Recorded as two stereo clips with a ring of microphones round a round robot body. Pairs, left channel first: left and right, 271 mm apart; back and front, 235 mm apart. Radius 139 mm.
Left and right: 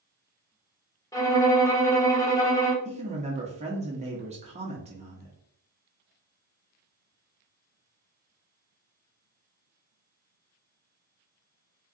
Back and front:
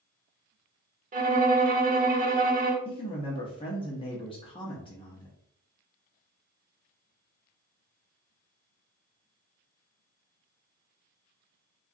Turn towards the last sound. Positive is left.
turn(degrees=-130)